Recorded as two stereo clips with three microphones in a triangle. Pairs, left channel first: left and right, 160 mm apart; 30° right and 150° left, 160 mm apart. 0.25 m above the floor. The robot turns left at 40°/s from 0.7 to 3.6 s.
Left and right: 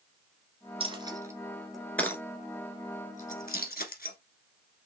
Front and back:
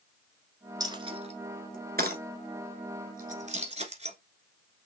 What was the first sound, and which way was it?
A dropped coin, 140° right.